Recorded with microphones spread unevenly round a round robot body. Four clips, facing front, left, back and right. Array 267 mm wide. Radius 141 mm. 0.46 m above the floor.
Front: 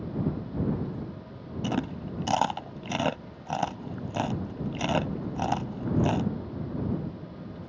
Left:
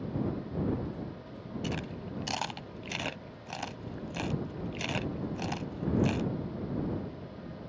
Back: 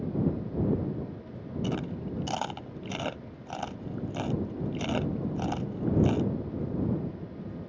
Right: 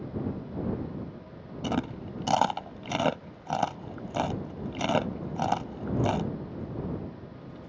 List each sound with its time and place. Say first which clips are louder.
1.6 s chewing: right 8 dB, front 3 dB; 50° right